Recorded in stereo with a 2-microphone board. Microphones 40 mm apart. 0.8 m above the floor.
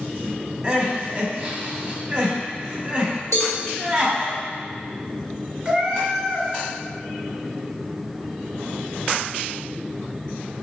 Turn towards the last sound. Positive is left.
turn(degrees=-25)  # may be behind; listen again after turning